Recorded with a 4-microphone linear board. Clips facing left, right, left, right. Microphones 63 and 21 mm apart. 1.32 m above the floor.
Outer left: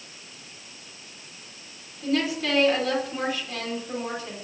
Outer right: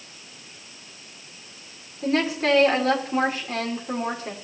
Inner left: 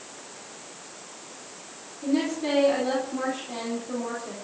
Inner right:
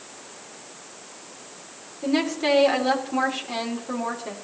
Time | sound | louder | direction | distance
2.0 | a woman speaking | outer right 3 dB, inner right 3 dB | 40° right (ahead or behind) | 4 m